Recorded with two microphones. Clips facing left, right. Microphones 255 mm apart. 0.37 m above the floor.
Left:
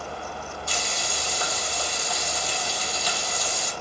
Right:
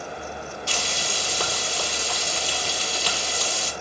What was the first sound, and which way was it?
Frying, 85° right.